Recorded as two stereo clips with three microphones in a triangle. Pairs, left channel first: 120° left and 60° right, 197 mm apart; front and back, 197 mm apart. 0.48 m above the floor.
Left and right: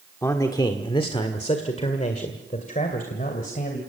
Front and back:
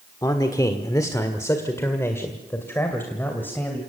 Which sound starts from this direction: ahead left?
A man speaking, at 0.2 s.